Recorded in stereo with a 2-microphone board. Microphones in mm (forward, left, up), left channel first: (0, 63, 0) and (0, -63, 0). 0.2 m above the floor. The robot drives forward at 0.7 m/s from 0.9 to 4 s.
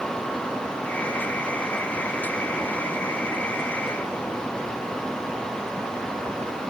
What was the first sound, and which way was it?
Only background noise.